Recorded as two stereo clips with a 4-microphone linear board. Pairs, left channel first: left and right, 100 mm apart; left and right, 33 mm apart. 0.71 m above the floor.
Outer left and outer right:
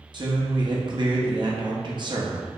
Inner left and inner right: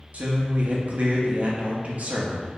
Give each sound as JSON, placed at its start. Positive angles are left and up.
{"t": 0.1, "sound": "a man speaking", "side_deg": -50, "distance_m": 0.7}